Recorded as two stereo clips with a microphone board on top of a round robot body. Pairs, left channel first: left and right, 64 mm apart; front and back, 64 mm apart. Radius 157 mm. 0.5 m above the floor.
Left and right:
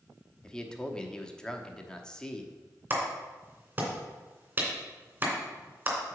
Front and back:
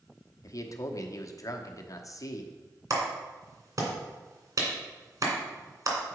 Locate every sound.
0.4 s a man speaking: 15° left, 1.1 m
2.9 s a clap: 150° right, 2.5 m